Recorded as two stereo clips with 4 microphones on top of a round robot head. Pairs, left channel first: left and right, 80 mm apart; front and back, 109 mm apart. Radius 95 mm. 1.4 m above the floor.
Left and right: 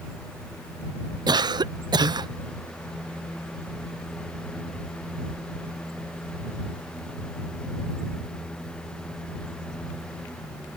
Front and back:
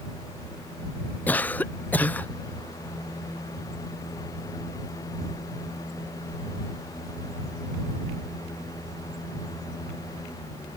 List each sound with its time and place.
1.3 s a cough: 75° right